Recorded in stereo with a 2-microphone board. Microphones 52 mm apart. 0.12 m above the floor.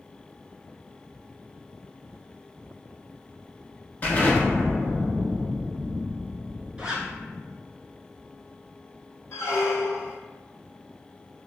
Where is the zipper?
20° right (ahead or behind), 0.7 m.